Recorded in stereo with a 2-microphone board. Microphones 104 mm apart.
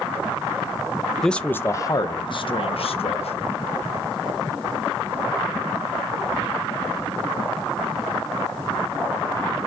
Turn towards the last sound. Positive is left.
turn(degrees=75)  # may be behind; listen again after turning